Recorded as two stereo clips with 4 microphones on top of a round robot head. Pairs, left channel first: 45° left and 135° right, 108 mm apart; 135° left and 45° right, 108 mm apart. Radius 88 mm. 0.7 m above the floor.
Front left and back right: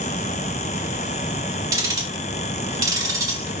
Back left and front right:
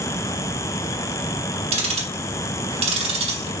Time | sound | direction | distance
1.7 | ticking | 75° right | 1.8 m